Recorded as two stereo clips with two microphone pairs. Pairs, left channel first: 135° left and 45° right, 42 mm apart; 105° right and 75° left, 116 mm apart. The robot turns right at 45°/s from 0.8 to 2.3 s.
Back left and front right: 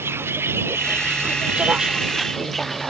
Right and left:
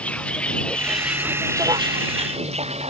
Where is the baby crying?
No baby crying in this recording.